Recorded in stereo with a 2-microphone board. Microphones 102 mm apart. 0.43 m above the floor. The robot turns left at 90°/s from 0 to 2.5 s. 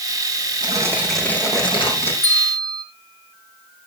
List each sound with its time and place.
0.6 s tearing paper: 130° right, 5 m; by 2.1 s 90° left, 5 m
2.2 s a bell: 25° left (ahead or behind), 3 m; by 2.8 s 5° left (ahead or behind), 3 m